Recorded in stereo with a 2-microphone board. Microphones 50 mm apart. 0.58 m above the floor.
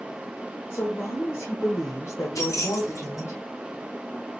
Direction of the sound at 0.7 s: 45° left (ahead or behind).